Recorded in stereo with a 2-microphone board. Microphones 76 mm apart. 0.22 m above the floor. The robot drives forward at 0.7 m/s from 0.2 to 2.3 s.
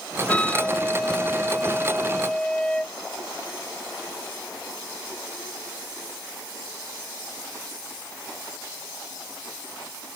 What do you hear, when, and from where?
0.3 s a flute: 15° left (ahead or behind); by 3.0 s 10° left (ahead or behind)